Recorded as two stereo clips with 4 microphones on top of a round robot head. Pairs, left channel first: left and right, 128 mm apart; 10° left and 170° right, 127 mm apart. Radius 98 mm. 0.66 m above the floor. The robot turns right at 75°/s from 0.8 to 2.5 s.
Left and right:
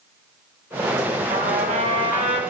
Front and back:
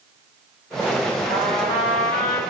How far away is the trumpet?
About 4.5 m.